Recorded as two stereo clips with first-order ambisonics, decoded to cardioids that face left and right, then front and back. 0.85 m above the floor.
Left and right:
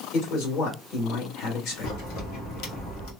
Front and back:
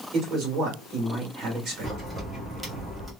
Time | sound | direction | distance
0.1 | a man speaking | 125° left | 1.7 m
1.8 | a crack | 100° left | 1.4 m